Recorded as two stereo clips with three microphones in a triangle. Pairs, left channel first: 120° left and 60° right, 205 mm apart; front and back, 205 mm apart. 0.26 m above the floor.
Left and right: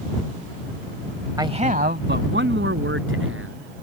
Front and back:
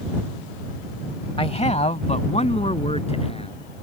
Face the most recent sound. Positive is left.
turn(degrees=-60)